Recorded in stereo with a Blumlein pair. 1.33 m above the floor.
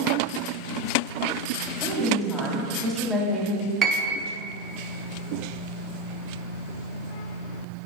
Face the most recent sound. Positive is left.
turn(degrees=-20)